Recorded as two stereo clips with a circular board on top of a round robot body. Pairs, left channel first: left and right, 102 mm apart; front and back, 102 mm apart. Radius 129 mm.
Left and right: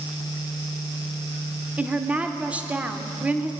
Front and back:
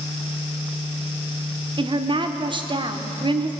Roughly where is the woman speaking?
Behind.